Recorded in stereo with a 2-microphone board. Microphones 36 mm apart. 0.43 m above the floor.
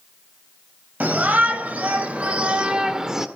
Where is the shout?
50° right (ahead or behind), 3 m; by 3.3 s 10° right (ahead or behind), 1.5 m.